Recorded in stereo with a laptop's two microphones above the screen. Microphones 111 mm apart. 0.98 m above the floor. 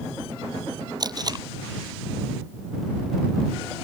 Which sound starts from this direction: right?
Tape being pulled, at 1.0 s.